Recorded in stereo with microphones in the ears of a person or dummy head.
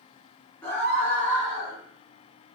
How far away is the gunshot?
I don't hear a gunshot.